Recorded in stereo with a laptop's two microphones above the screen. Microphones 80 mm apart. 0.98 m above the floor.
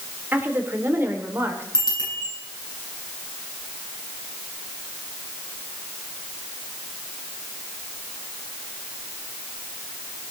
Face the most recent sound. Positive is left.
turn(degrees=55)  # may be behind; listen again after turning